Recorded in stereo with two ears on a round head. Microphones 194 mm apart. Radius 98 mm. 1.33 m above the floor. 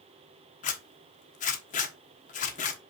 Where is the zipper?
35° left (ahead or behind), 1.2 m.